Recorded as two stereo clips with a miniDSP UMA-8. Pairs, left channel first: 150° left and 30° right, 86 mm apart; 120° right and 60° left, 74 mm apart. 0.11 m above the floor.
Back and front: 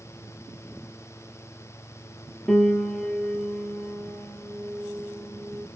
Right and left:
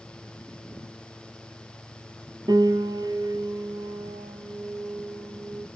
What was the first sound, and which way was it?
A piano, 65° left.